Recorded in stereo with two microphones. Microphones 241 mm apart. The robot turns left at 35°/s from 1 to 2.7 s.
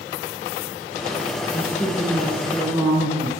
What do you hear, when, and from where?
1.5 s a woman speaking: 30° left, 3 m; by 3.3 s 10° right, 3 m